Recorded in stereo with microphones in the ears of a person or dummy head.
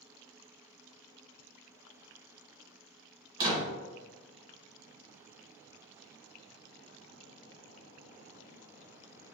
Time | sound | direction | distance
3.4 | a door slam | 20° right (ahead or behind) | 1.2 m